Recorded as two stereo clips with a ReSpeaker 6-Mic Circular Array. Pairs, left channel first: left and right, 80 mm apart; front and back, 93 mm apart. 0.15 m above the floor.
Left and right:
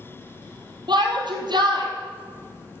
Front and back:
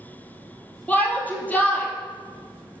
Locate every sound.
0.9 s a shout: 75° right, 3.5 m